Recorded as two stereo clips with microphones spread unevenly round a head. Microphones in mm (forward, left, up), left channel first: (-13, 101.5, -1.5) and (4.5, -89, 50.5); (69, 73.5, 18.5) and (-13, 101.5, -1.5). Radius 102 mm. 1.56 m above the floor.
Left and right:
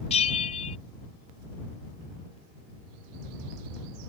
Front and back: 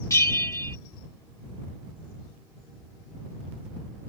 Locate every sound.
0.1 s a bell: 30° left